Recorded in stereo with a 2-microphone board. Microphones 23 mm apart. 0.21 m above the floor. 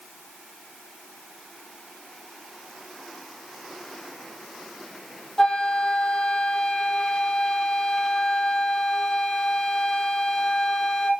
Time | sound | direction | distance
5.4 | a flute | 30° left (ahead or behind) | 2.5 m